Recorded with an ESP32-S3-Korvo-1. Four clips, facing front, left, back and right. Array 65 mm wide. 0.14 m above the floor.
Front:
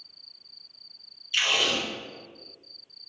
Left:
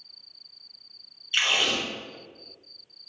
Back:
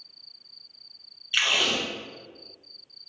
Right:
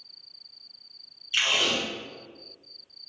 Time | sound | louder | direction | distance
1.3 | tape being pulled | left 1 dB, back 1 dB | 160° left | 1.9 m